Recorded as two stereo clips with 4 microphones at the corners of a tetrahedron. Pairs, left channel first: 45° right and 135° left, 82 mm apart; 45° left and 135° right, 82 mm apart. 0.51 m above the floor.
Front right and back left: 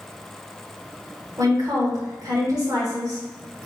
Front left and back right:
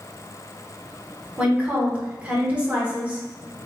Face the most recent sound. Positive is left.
turn(degrees=155)